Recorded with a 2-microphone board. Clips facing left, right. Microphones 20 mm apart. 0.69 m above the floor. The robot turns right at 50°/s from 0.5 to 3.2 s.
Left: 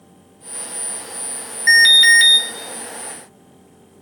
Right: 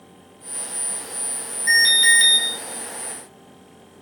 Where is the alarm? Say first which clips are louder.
Left 6 dB; 130° left, 1.5 m; by 2.4 s 165° left, 1.5 m.